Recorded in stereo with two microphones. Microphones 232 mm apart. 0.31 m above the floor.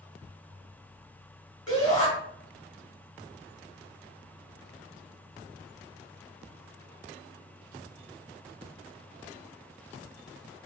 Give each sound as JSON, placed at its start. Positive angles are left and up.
{"t": 1.7, "sound": "a shout", "side_deg": 15, "distance_m": 1.7}